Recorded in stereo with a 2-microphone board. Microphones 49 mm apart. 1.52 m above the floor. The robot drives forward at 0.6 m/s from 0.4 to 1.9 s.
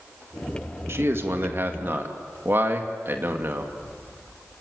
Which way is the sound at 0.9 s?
55° right (ahead or behind).